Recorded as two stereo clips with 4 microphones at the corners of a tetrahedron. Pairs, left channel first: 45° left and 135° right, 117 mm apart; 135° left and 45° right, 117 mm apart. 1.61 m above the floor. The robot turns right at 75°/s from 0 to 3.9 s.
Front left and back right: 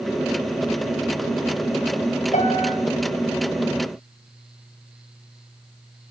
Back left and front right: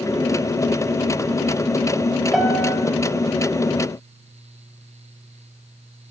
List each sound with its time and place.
2.3 s a piano: 40° left, 6 m; by 2.8 s 70° left, 6 m